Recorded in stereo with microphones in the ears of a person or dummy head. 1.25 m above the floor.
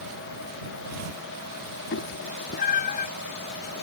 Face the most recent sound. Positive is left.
turn(degrees=50)  # may be behind; listen again after turning